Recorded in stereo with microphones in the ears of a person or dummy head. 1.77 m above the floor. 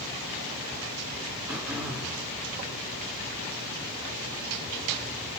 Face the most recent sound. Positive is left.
turn(degrees=-10)  # may be behind; listen again after turning